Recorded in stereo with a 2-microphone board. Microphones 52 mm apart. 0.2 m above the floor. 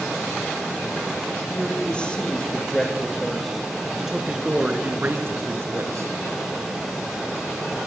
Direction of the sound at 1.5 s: 20° left (ahead or behind).